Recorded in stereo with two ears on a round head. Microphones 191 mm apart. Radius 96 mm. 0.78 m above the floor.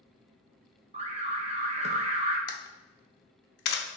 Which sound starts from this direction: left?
A camera shutter, at 2.5 s.